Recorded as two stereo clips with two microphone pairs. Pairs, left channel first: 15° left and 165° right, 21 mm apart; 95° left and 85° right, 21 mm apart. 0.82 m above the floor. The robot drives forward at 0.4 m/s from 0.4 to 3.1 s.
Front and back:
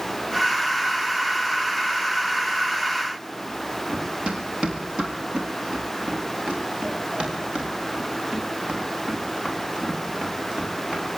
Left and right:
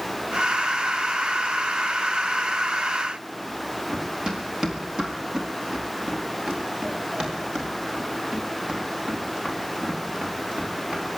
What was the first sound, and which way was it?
Running footsteps, 145° right.